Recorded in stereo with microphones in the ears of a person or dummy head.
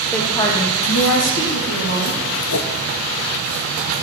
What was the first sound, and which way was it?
A woman speaking, centre (ahead or behind).